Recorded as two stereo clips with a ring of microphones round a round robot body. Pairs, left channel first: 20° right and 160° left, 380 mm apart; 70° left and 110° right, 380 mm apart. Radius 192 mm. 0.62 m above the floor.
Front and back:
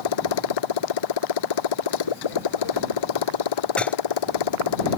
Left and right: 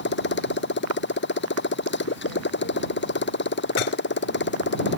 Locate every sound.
0.0 s a motorcycle: 5° left
3.8 s dishes clattering: 65° left